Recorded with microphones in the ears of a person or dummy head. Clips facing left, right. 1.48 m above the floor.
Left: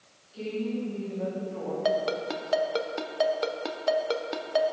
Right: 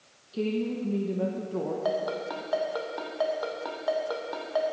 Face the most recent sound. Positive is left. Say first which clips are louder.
# left 2 dB
turn(degrees=40)  # may be behind; listen again after turning